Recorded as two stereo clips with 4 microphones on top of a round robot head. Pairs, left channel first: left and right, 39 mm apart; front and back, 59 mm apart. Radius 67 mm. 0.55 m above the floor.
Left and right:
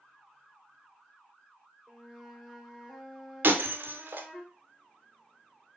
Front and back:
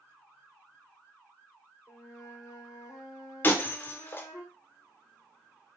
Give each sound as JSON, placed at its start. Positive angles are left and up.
{"t": 1.9, "sound": "a flute", "azimuth_deg": -15, "distance_m": 1.6}
{"t": 3.4, "sound": "breaking glass", "azimuth_deg": -60, "distance_m": 0.6}